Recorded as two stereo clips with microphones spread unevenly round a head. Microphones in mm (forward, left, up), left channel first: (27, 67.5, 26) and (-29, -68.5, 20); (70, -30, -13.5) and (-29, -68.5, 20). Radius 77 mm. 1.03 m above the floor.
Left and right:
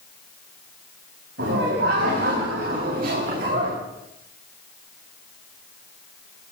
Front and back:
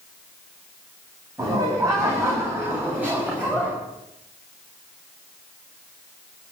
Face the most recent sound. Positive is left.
turn(degrees=-75)